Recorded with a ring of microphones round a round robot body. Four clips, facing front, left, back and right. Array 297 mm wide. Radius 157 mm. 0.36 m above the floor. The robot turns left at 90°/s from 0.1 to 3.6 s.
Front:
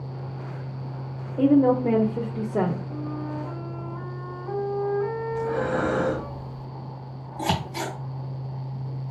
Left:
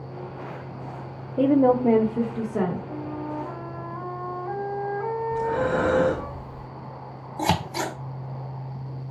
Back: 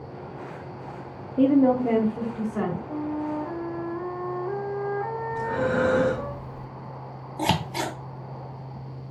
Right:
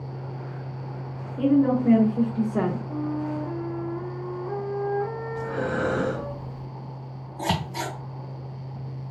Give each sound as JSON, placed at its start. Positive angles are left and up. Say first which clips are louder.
{"t": 1.4, "sound": "a woman speaking", "louder": "left 2 dB, even", "azimuth_deg": 110, "distance_m": 1.1}
{"t": 2.9, "sound": "a flute", "louder": "right 3 dB, back 4 dB", "azimuth_deg": 155, "distance_m": 2.0}
{"t": 5.3, "sound": "breathing", "louder": "left 6 dB, back 2 dB", "azimuth_deg": 85, "distance_m": 2.0}
{"t": 7.4, "sound": "scissors", "louder": "left 3 dB, back 1 dB", "azimuth_deg": 115, "distance_m": 1.1}